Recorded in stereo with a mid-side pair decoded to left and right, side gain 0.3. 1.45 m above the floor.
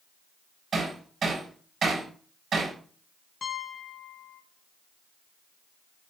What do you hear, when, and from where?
0.7 s hammering: 65° right, 7 m
3.4 s a piano: 55° left, 2.5 m